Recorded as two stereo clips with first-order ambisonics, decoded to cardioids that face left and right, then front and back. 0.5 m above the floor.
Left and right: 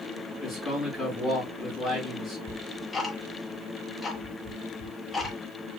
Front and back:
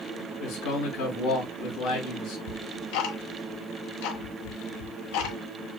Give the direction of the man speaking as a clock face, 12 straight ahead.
1 o'clock.